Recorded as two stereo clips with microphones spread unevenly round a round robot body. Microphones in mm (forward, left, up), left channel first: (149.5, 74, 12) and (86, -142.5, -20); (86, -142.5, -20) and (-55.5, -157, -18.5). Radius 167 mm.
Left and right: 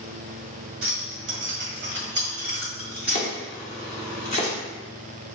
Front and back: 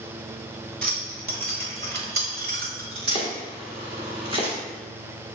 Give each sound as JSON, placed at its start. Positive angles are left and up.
{"t": 0.8, "sound": "keys jangling", "azimuth_deg": -155, "distance_m": 1.6}
{"t": 3.1, "sound": "chopping", "azimuth_deg": 135, "distance_m": 1.2}